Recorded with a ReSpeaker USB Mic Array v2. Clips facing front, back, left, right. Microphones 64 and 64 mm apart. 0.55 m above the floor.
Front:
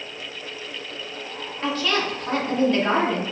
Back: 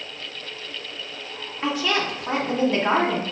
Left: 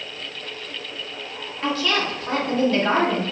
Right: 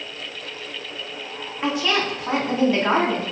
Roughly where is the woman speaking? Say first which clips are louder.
Even, right 1 dB; behind right.